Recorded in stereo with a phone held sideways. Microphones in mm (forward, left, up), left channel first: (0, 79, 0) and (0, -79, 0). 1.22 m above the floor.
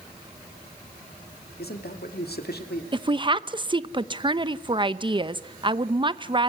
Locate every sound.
1.6 s a man speaking: 90° left, 2.5 m
2.9 s a woman speaking: 30° right (ahead or behind), 0.8 m